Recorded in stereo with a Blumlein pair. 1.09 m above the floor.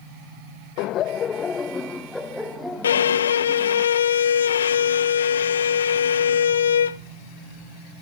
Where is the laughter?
45° left, 0.8 m; by 3.8 s 5° right, 3 m.